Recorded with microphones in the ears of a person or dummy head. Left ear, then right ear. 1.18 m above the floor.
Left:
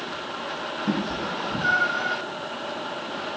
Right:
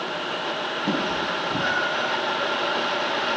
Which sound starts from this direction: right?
A cat meowing, at 0.9 s.